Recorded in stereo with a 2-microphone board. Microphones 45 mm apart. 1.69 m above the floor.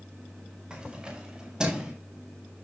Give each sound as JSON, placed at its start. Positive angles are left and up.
{"t": 0.7, "sound": "keys jangling", "side_deg": -15, "distance_m": 6.0}